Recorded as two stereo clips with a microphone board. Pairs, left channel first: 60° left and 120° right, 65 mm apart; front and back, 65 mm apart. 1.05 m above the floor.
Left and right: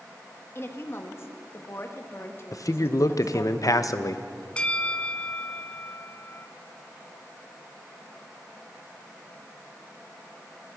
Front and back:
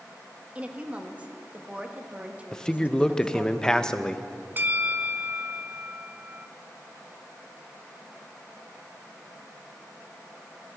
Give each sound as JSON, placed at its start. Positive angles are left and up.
{"t": 0.6, "sound": "a woman speaking", "azimuth_deg": 110, "distance_m": 1.4}
{"t": 2.5, "sound": "a man speaking", "azimuth_deg": 75, "distance_m": 0.7}
{"t": 4.6, "sound": "a bell", "azimuth_deg": 130, "distance_m": 0.5}